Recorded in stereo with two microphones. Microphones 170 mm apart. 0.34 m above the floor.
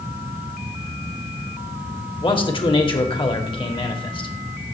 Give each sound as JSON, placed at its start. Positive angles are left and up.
{"t": 2.2, "sound": "a man speaking", "side_deg": 30, "distance_m": 1.0}